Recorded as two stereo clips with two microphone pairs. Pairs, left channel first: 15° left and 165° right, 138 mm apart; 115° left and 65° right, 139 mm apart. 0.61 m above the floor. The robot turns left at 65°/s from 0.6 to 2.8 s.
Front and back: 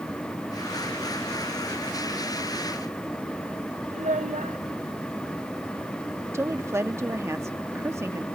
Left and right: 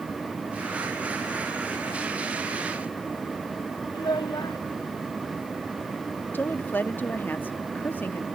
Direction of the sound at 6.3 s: 165° left.